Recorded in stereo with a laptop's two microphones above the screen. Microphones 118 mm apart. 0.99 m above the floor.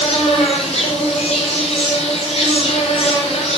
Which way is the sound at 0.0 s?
65° left (ahead or behind).